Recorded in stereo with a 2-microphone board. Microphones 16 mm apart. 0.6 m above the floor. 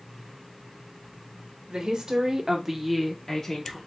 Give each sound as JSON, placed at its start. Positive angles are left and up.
{"t": 1.7, "sound": "a woman speaking", "side_deg": -55, "distance_m": 1.6}